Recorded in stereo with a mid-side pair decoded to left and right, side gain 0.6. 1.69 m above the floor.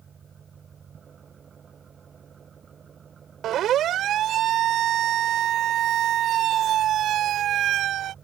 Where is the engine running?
35° right.